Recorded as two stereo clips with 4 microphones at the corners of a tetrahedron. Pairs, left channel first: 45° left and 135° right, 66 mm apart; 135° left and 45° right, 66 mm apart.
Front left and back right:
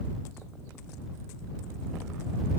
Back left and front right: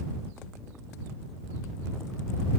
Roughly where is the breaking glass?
I don't hear breaking glass.